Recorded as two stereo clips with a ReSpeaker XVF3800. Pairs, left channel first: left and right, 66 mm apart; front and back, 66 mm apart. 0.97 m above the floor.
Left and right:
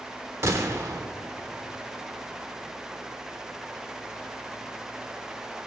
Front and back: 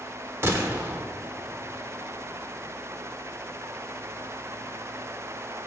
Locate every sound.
0.4 s a gunshot: 130° right, 1.1 m